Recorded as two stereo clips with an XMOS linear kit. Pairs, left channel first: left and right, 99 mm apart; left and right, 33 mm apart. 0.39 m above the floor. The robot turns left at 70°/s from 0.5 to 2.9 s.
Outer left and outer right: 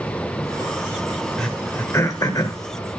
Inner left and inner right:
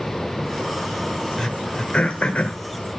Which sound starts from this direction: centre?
Throat clearing, at 1.4 s.